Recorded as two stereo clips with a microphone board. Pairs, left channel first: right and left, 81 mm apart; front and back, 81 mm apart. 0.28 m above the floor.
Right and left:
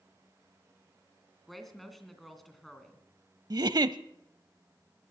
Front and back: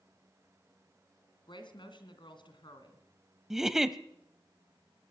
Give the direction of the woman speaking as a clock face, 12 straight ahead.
12 o'clock.